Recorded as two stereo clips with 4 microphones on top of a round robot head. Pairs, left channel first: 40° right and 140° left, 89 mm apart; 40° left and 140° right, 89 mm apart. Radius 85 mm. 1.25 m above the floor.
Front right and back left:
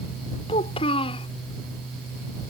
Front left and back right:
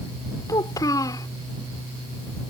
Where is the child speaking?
15° right.